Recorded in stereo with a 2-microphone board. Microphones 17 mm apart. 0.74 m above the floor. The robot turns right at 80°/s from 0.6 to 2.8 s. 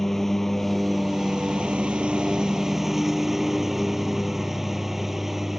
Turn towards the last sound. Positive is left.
turn(degrees=-15)